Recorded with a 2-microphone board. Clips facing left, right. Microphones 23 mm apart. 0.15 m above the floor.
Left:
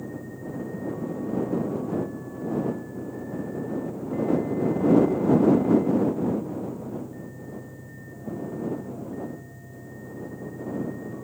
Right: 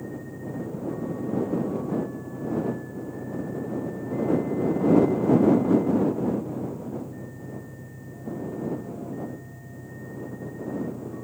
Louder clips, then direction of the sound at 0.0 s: Even; 65° right (ahead or behind).